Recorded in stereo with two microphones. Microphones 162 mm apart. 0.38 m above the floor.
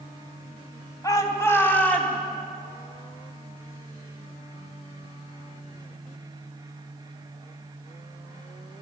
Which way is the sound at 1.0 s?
20° left (ahead or behind).